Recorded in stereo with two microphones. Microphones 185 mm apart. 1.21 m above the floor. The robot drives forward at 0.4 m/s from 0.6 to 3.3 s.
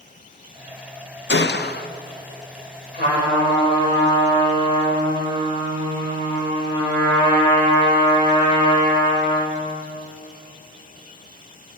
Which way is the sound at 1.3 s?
80° left.